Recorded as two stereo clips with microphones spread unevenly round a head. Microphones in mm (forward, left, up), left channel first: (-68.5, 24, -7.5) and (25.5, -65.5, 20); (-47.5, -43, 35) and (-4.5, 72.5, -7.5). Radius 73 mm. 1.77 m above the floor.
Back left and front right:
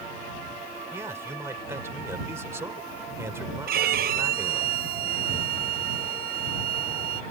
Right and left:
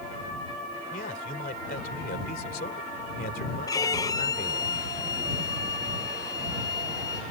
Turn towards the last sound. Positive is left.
turn(degrees=-45)